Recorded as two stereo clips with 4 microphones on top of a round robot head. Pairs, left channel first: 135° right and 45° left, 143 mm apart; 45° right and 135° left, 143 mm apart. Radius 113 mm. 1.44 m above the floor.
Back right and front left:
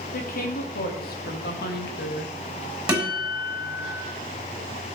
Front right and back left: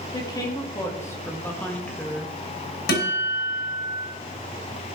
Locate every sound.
0.1 s a woman speaking: 110° right, 2.5 m; by 2.4 s 135° right, 1.5 m
2.9 s a guitar: 40° right, 5 m